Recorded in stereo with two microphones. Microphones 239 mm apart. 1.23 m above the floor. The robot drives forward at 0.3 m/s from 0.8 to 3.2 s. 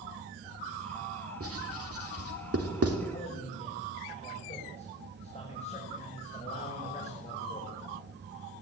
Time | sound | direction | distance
1.4 | writing | 70° right (ahead or behind) | 3.5 m
3.1 | a man speaking | 25° left (ahead or behind) | 6.5 m